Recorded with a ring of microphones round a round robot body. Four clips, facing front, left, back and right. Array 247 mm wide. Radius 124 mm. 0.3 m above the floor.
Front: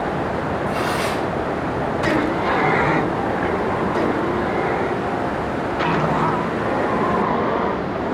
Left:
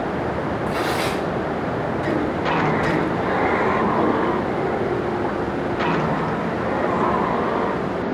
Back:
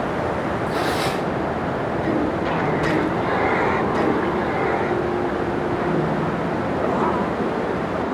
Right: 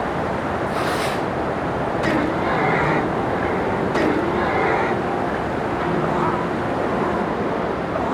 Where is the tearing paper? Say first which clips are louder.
Left 1 dB, even; 135° left, 5.5 m.